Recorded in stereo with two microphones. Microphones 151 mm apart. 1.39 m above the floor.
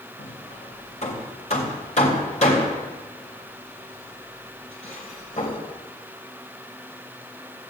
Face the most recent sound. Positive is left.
turn(degrees=50)  # may be behind; listen again after turning